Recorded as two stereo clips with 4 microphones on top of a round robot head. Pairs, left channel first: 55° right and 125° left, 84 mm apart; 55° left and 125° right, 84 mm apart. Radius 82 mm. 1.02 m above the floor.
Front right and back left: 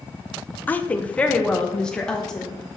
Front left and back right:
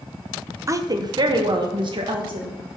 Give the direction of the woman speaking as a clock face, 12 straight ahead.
4 o'clock.